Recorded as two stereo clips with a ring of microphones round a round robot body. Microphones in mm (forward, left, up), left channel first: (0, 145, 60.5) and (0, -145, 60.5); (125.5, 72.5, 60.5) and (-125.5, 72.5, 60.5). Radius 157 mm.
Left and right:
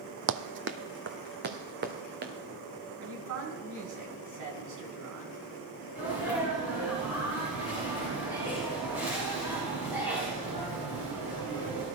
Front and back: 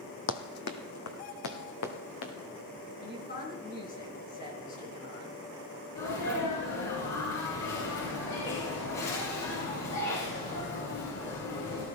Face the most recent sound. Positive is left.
turn(degrees=-5)